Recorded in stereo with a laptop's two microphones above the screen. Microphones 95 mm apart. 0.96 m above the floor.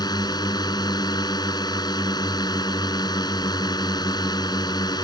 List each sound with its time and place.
0.0 s a drone: 45° left (ahead or behind)